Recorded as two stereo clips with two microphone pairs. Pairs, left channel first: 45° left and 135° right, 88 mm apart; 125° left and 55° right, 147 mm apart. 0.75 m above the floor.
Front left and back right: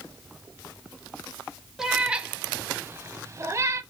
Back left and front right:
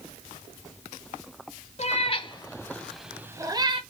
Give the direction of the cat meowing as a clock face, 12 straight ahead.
7 o'clock.